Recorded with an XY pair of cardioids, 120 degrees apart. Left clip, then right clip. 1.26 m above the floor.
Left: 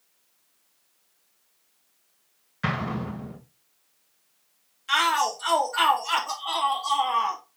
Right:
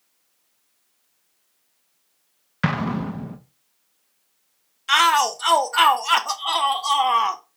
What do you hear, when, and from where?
2.6 s an explosion: 55° right, 1.7 m
4.9 s a shout: 45° right, 1.0 m